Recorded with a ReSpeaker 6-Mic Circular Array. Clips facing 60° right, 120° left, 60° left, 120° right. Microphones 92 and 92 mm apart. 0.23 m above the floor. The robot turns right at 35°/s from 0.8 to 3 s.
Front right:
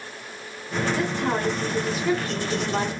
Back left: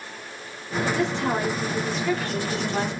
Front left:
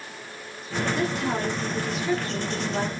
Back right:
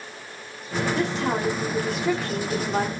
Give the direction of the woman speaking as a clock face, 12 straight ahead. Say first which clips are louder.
Back left 1 dB, back right 2 dB; 6 o'clock.